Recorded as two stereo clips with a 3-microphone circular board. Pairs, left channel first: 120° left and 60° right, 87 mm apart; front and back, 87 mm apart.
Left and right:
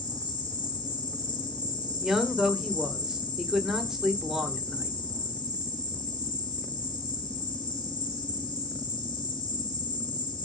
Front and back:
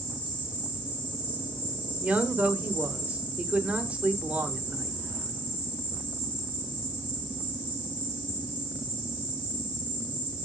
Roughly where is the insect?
Left.